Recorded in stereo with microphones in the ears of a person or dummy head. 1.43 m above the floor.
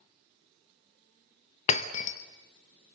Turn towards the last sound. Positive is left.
turn(degrees=35)  # may be behind; listen again after turning